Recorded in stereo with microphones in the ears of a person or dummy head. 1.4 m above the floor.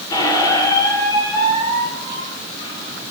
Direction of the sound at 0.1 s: 25° left (ahead or behind).